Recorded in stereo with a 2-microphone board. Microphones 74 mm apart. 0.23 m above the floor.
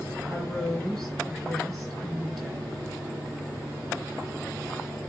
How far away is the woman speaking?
About 3 m.